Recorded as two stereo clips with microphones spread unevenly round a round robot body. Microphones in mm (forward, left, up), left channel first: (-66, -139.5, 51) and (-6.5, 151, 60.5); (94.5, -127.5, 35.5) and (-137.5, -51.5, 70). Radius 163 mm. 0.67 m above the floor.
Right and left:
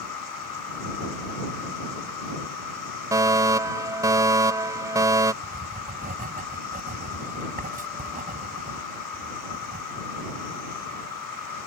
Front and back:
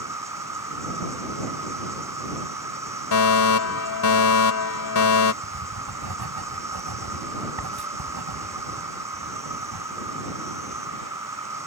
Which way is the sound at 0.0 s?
120° right.